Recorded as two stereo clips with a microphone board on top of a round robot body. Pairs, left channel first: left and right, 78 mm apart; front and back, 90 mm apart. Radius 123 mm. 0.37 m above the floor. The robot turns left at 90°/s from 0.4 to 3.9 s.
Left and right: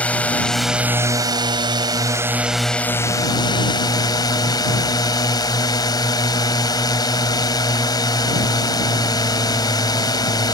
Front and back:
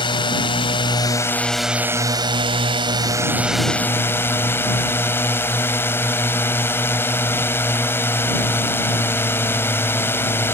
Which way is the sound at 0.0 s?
20° left.